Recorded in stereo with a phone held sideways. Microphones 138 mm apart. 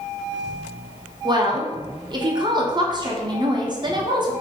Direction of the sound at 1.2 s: 35° right (ahead or behind).